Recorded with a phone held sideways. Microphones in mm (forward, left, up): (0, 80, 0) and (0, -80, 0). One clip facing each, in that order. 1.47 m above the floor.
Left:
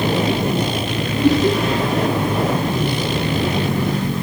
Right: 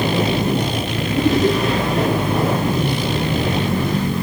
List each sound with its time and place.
1.1 s laughter: 60° right (ahead or behind), 9.5 m